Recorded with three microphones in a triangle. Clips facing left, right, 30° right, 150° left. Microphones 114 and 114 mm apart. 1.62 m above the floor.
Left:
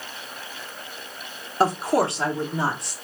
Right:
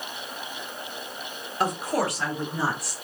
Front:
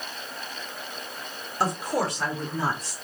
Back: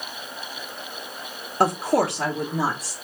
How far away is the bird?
No bird in this recording.